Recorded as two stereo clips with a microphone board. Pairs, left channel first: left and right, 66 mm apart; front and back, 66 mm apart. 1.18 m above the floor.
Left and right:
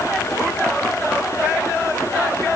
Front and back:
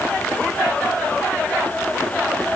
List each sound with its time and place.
Only background noise.